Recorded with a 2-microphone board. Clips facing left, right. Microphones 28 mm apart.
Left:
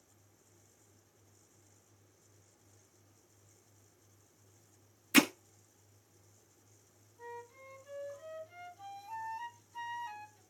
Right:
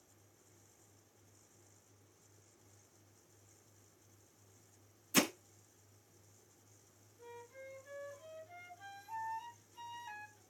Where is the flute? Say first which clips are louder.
Left 4 dB; 55° left (ahead or behind), 6.5 m.